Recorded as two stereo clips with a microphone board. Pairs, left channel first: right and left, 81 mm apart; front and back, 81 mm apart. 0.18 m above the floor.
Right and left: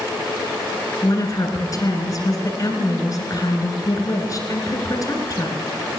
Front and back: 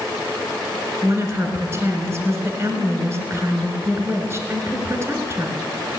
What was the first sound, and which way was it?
A woman speaking, 130° right.